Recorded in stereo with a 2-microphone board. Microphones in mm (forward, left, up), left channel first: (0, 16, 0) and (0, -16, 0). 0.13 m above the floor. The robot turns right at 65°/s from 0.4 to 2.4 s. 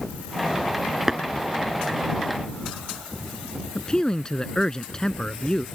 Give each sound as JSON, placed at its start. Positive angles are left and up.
{"t": 1.1, "sound": "tapping", "side_deg": -15}
{"t": 3.8, "sound": "a man speaking", "side_deg": 25}